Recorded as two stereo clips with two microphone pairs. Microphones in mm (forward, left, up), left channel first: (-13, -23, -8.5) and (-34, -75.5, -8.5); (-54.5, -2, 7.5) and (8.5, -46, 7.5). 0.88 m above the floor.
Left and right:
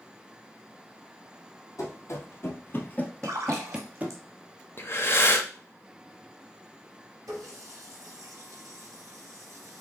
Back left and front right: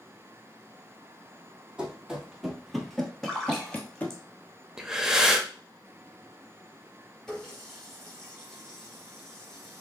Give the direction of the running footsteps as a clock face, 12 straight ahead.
10 o'clock.